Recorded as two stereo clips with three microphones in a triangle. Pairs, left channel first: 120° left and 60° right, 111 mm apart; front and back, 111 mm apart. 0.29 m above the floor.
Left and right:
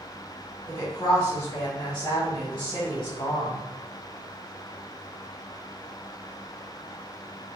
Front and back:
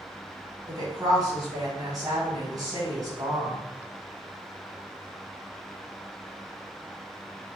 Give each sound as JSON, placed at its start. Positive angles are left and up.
{"t": 0.7, "sound": "a woman speaking", "azimuth_deg": 150, "distance_m": 1.9}